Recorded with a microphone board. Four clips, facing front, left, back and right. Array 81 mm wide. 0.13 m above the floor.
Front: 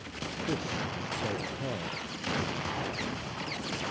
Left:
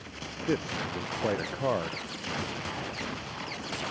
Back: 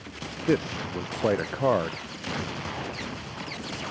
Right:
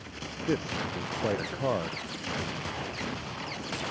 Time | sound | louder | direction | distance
0.5 | a man speaking | even, back 9 dB | 175° left | ?